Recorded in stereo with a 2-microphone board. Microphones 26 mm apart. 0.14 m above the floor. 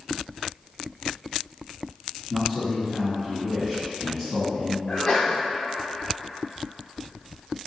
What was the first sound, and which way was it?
A man speaking, 5° left (ahead or behind).